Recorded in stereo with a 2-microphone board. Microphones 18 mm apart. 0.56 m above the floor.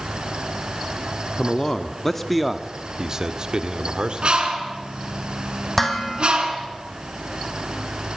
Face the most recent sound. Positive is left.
turn(degrees=5)  # may be behind; listen again after turning